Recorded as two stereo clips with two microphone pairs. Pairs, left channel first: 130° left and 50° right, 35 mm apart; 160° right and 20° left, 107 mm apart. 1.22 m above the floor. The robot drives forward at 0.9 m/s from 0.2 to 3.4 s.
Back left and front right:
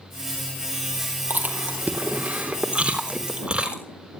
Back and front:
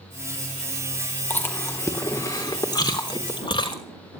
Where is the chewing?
90° right, 3.5 m; by 3.8 s 120° right, 3.5 m.